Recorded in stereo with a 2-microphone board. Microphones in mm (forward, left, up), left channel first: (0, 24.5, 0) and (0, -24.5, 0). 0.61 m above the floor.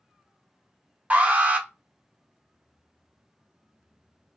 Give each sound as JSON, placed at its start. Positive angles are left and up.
{"t": 1.1, "sound": "an alarm", "side_deg": -30, "distance_m": 0.9}